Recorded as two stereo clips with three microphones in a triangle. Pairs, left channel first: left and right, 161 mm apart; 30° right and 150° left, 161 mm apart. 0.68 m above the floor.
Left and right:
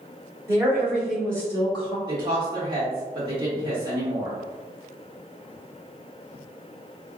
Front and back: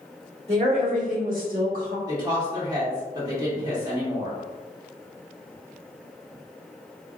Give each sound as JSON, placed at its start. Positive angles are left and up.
{"t": 0.5, "sound": "a woman speaking", "azimuth_deg": -165, "distance_m": 2.0}
{"t": 2.1, "sound": "a woman speaking", "azimuth_deg": -145, "distance_m": 1.8}